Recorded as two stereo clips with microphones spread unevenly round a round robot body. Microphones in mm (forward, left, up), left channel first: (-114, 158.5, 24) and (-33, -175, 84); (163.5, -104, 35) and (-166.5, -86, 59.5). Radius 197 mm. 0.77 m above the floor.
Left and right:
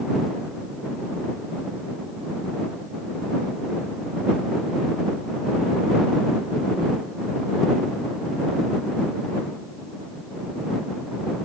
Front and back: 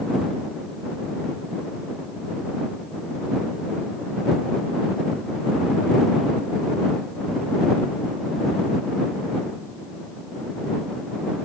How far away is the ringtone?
No ringtone in this recording.